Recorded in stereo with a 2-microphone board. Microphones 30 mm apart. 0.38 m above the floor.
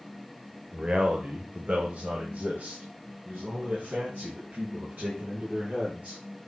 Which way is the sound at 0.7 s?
35° right (ahead or behind).